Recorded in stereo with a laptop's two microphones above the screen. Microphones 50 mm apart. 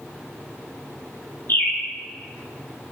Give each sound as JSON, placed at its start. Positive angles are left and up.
{"t": 1.5, "sound": "a bird", "side_deg": 50, "distance_m": 1.4}